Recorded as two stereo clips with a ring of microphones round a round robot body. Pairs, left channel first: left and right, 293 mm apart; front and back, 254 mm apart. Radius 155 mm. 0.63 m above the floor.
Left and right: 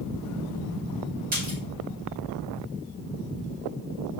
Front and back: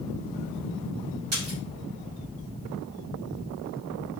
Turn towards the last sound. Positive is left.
turn(degrees=-150)